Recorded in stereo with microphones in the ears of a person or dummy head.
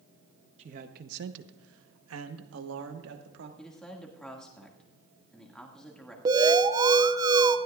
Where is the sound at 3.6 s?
Centre (ahead or behind), 1.8 m.